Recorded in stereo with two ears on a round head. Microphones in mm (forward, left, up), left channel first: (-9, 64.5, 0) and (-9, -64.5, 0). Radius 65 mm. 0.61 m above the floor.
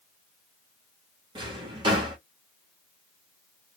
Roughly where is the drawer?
Right.